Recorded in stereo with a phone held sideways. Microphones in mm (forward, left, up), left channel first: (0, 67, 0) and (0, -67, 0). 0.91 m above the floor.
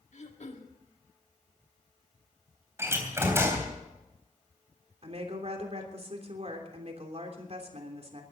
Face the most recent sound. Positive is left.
turn(degrees=-50)  # may be behind; listen again after turning